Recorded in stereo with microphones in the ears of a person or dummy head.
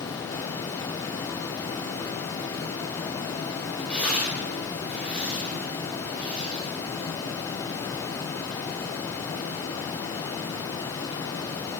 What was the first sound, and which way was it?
Tearing paper, centre (ahead or behind).